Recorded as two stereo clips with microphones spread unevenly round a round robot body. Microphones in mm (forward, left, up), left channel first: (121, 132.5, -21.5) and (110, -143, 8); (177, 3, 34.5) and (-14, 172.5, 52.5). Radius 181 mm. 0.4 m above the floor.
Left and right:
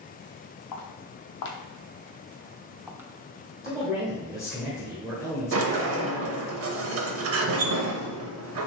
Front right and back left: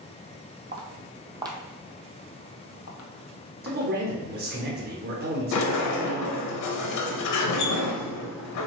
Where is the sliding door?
50° right, 0.7 m.